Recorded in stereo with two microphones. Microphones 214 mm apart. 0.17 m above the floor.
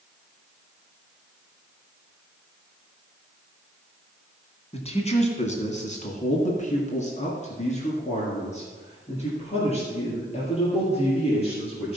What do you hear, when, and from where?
4.7 s a man speaking: 30° left (ahead or behind), 1.7 m